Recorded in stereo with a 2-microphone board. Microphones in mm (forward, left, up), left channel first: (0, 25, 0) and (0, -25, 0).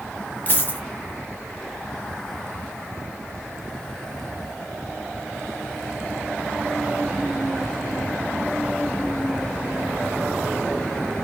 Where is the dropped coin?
35° left (ahead or behind), 0.7 m.